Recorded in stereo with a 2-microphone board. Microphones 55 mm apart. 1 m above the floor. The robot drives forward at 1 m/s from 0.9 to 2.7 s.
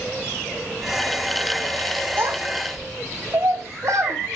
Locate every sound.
2.2 s a child speaking: 45° right (ahead or behind), 1.4 m; by 4.4 s 60° right (ahead or behind), 1.1 m